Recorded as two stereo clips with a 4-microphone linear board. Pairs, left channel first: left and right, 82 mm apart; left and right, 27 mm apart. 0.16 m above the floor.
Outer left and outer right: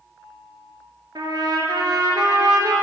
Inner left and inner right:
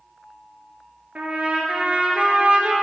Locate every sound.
1.1 s a trumpet: 60° right (ahead or behind), 1.5 m